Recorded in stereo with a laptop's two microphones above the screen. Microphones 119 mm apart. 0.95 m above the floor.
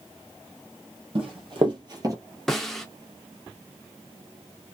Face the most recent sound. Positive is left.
turn(degrees=5)  # may be behind; listen again after turning